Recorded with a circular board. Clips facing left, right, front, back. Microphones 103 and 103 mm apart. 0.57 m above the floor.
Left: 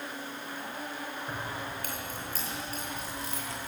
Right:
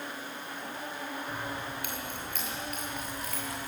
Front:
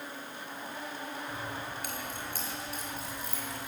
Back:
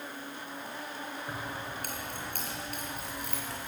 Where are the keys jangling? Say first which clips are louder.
Even, even; 135° left, 5.5 m; by 3.7 s 155° left, 7.5 m.